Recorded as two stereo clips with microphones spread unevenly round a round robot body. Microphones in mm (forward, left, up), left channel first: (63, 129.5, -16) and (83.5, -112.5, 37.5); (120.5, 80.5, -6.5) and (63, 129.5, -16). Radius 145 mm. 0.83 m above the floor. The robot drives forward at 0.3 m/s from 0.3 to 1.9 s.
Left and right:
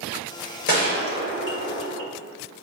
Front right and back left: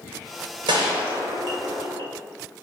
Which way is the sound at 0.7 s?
155° left.